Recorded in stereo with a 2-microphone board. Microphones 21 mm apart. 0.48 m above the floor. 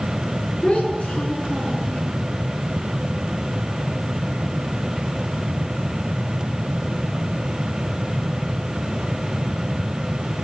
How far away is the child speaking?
About 4 m.